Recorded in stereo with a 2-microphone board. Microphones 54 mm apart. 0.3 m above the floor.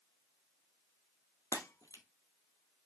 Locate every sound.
1.5 s breaking glass: 80° left, 1.8 m